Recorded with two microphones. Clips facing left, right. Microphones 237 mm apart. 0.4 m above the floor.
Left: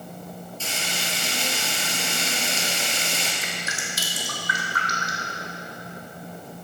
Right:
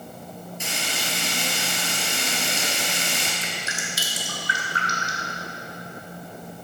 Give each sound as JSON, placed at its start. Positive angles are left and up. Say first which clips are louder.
{"t": 0.6, "sound": "frying", "louder": "right 1 dB", "side_deg": -15, "distance_m": 2.0}
{"t": 3.4, "sound": "dripping", "louder": "even", "side_deg": -30, "distance_m": 1.7}